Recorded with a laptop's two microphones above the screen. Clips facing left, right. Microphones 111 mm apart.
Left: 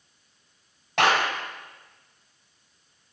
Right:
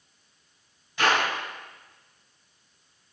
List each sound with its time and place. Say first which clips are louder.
1.0 s a clap: left 2 dB; 75° left (ahead or behind), 5.5 m